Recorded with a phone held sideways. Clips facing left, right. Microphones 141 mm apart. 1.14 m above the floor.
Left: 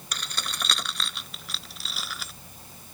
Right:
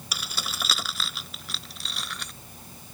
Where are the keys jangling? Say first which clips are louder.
Even; 5° right (ahead or behind); by 2.3 s 5° left (ahead or behind).